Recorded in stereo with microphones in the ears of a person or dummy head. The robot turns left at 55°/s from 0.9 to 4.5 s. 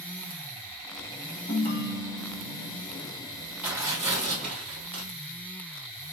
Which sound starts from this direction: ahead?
Tearing paper, at 3.6 s.